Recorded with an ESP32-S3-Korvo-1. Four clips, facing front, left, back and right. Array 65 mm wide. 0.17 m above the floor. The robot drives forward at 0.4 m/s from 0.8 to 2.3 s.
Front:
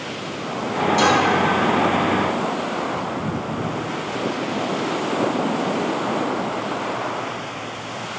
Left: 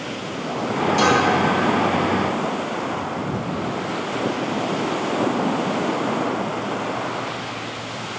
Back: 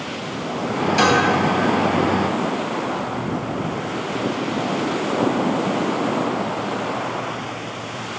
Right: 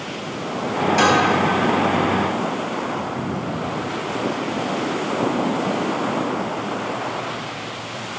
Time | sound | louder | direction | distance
1.0 | dishes clattering | right 1 dB, back 1 dB | 125° right | 2.5 m